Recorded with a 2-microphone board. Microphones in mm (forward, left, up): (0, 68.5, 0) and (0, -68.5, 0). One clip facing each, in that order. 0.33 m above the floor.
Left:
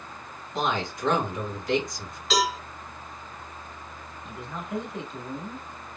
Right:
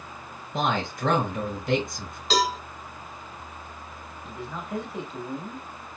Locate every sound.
0.5 s a man speaking: 55° right (ahead or behind), 2.5 m
2.3 s a cowbell: 35° right (ahead or behind), 2 m
4.2 s a man speaking: centre (ahead or behind), 1.2 m